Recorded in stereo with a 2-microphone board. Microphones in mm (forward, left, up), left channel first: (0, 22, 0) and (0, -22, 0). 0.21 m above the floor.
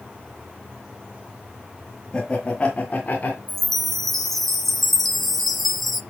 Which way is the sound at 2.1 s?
15° left (ahead or behind).